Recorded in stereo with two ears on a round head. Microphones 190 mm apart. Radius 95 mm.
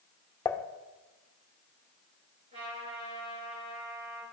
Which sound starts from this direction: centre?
Dishes clattering, at 0.5 s.